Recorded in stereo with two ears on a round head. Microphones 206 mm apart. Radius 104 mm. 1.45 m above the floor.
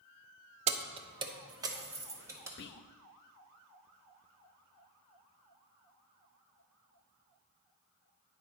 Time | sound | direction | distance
0.7 | keys jangling | 25° right (ahead or behind) | 0.6 m
2.6 | whispering | 45° left (ahead or behind) | 0.5 m